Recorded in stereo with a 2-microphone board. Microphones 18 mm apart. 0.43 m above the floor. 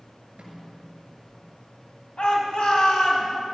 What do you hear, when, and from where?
0.4 s a snare drum: 60° right (ahead or behind), 6.5 m
2.2 s a shout: 65° left (ahead or behind), 3 m